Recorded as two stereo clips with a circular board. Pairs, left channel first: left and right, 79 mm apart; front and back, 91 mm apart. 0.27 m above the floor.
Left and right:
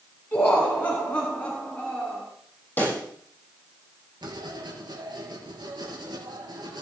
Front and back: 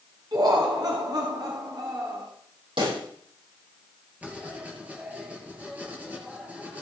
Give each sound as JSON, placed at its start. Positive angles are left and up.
{"t": 0.3, "sound": "laughter", "azimuth_deg": 155, "distance_m": 3.0}
{"t": 2.8, "sound": "a pop", "azimuth_deg": 155, "distance_m": 7.0}
{"t": 4.2, "sound": "writing", "azimuth_deg": -105, "distance_m": 5.0}